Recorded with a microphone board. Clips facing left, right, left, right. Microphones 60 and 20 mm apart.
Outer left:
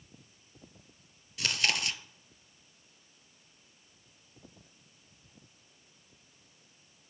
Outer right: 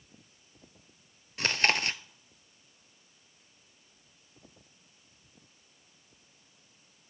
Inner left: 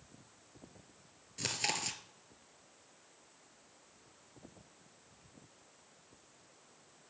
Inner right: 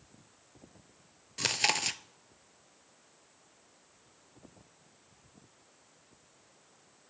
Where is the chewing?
35° right (ahead or behind), 0.5 m.